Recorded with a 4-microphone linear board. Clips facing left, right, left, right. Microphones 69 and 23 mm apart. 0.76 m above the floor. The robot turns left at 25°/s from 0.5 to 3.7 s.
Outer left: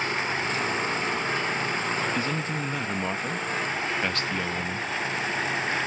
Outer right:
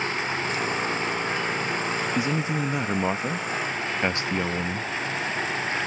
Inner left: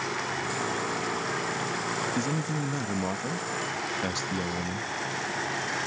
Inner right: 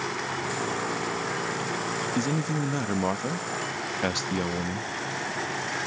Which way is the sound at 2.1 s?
15° right (ahead or behind).